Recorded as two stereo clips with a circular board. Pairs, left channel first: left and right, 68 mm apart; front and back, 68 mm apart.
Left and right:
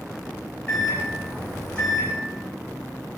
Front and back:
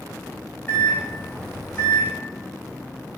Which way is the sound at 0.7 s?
40° left.